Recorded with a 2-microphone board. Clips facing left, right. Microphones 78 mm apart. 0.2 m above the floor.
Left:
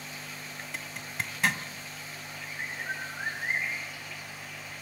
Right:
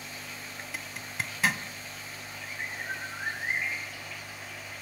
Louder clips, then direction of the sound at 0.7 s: Even; centre (ahead or behind).